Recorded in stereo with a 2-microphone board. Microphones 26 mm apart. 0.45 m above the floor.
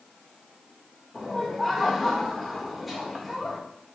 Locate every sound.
1.1 s laughter: 5° right (ahead or behind), 1.3 m